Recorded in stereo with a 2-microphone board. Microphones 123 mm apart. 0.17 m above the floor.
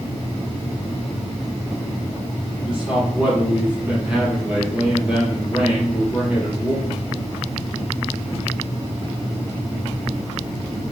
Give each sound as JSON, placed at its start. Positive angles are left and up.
{"t": 2.7, "sound": "a man speaking", "side_deg": -10, "distance_m": 4.5}